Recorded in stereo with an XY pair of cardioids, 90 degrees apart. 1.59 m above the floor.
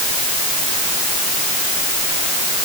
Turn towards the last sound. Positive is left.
No sound to turn to.